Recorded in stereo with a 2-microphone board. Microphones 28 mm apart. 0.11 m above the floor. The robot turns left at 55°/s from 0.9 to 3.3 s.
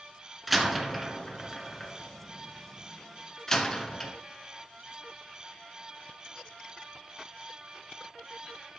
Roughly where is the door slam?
Centre.